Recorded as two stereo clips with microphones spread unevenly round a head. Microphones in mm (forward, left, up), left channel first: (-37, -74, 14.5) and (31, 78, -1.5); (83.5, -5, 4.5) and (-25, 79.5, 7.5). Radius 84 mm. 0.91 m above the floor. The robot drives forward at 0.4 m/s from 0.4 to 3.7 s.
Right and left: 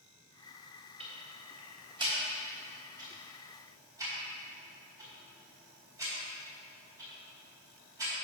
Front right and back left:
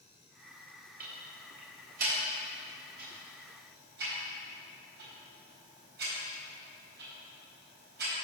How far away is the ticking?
About 3 m.